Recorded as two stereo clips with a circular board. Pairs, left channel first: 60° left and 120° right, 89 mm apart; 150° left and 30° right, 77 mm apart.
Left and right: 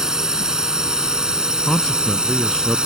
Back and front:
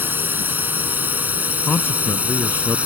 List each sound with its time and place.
0.0 s a drone: 45° right; by 2.9 s 55° right
1.7 s a man speaking: 140° left